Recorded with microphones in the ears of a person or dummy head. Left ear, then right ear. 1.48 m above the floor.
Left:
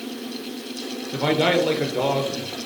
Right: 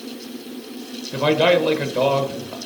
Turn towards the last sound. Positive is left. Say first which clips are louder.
# right 4 dB
turn(degrees=-15)  # may be behind; listen again after turning